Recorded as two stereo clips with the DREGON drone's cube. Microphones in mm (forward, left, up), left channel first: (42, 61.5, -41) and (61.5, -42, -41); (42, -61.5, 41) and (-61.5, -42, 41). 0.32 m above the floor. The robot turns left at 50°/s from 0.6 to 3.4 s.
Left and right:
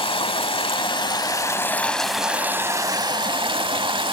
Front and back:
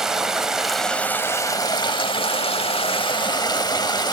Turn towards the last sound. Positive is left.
turn(degrees=-55)